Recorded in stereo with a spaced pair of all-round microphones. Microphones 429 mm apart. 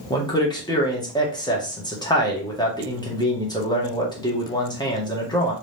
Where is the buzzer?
No buzzer in this recording.